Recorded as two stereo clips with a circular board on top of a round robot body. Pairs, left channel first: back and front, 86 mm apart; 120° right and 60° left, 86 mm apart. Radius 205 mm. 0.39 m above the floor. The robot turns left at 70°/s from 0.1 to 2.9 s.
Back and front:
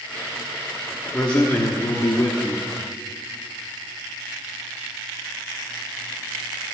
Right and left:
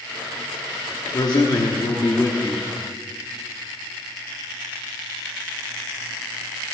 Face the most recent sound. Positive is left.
turn(degrees=145)